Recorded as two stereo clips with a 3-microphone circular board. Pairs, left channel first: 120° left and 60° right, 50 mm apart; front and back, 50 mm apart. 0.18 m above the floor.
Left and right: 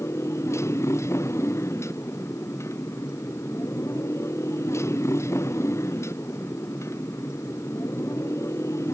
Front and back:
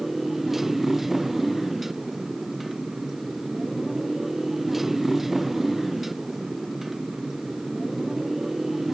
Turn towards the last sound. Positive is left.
turn(degrees=95)